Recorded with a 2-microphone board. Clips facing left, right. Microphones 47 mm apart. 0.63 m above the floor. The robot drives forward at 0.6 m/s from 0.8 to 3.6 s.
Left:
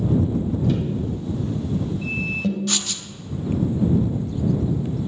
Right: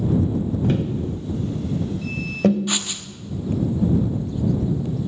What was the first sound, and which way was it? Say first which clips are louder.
Tapping: right 1 dB; 45° right (ahead or behind).